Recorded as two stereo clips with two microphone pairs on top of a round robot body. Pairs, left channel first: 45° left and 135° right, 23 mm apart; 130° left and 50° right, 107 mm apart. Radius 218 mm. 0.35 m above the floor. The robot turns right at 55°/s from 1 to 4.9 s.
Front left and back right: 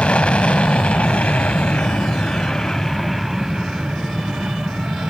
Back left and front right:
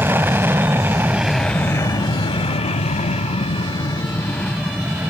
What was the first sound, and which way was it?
An aircraft, 25° left.